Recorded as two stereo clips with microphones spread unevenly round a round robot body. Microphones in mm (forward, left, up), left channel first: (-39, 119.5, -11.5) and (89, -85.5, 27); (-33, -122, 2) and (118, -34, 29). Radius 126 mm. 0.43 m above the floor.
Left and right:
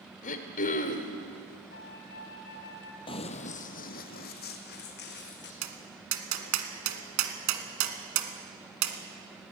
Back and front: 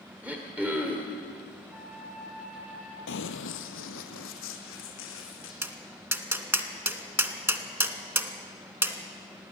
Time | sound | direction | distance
0.2 | throat clearing | 120° left | 1.5 m
1.7 | a flute | 120° left | 1.9 m
3.1 | running footsteps | 165° right | 0.7 m
5.6 | tapping | 45° right | 1.7 m